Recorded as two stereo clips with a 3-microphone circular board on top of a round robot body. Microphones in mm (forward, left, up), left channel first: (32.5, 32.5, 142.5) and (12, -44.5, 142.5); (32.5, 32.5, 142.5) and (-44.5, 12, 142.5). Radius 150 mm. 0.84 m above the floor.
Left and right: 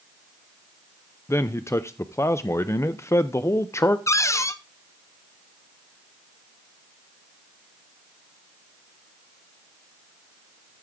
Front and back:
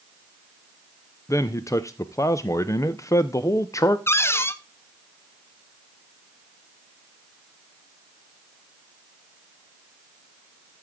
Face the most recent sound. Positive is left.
turn(degrees=55)